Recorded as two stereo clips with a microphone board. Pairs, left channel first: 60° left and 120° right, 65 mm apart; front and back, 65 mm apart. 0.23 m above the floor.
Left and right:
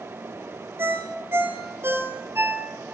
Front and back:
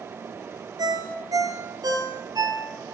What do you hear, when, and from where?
0.8 s a ringtone: 175° right, 3 m